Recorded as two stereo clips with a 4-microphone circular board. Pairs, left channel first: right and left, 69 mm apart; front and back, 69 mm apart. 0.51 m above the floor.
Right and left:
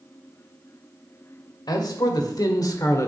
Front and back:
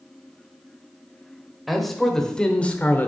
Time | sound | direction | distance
1.7 | a man speaking | 90° right | 1.7 m